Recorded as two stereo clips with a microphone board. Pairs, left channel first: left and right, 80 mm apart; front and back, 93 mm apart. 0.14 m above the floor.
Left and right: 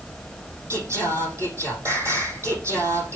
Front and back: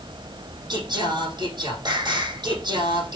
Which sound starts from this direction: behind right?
Singing, at 0.7 s.